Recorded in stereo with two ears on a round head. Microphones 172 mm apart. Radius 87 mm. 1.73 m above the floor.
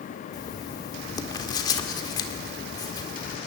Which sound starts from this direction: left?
Writing, at 0.3 s.